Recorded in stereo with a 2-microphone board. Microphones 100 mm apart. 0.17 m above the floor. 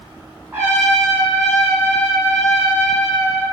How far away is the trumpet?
About 1.0 m.